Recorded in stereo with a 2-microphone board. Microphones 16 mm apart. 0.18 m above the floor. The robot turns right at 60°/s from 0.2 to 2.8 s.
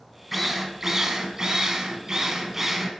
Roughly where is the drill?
Behind.